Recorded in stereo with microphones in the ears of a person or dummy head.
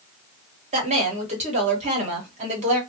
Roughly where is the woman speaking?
Right.